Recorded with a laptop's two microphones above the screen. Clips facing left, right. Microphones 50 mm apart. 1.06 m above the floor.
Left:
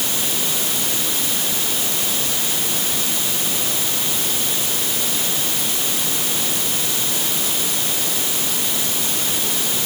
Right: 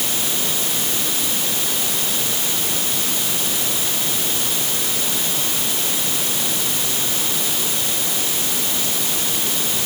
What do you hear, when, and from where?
Only background noise.